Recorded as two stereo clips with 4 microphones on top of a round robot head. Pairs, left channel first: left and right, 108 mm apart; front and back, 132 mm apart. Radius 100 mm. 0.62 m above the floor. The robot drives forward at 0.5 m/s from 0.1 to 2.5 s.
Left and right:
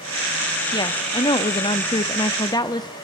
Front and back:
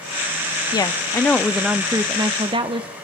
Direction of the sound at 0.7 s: 50° left.